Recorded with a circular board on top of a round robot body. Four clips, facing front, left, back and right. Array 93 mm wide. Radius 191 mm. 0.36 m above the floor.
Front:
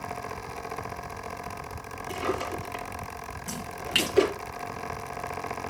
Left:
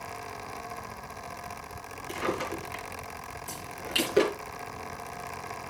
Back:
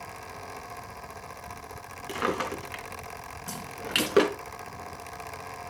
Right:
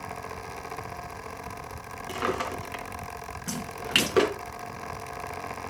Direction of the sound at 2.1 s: 150° right.